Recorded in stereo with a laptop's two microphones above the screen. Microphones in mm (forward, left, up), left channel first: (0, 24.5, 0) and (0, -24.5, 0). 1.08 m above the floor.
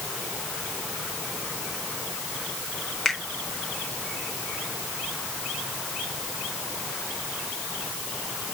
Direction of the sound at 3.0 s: 5° left (ahead or behind).